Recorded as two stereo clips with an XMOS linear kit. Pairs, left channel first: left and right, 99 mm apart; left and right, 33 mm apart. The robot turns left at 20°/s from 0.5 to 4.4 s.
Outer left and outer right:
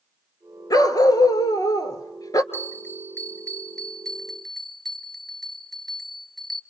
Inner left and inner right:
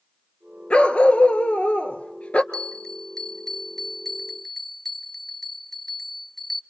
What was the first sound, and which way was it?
A dog barking, 105° left.